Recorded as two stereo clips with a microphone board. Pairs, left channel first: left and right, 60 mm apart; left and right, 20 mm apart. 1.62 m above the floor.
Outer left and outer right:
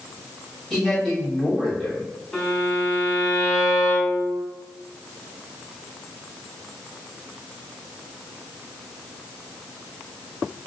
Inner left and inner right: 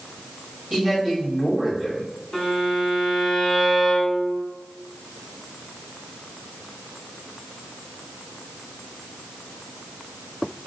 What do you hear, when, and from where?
0.7 s a man speaking: centre (ahead or behind), 2.0 m
2.3 s a violin: 5° left (ahead or behind), 1.2 m